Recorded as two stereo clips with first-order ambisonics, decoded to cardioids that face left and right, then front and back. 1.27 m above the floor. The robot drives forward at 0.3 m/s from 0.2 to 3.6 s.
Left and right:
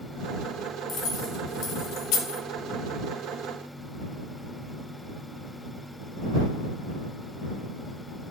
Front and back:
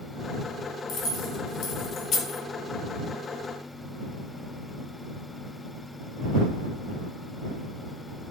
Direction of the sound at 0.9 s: 35° left.